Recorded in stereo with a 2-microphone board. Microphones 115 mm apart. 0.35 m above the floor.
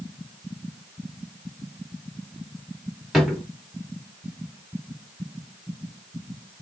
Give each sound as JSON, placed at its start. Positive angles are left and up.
{"t": 3.1, "sound": "a drawer", "side_deg": 0, "distance_m": 1.4}